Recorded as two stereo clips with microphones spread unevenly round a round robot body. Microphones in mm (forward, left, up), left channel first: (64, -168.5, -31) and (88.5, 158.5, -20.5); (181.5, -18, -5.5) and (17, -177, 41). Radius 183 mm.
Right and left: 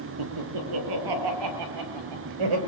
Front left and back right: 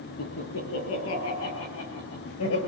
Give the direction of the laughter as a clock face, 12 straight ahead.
9 o'clock.